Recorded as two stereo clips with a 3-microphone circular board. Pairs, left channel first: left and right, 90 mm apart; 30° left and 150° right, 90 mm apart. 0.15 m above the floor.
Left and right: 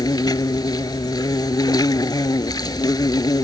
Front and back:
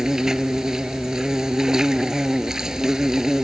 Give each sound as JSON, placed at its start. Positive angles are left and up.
{"t": 0.0, "sound": "an insect", "azimuth_deg": 125}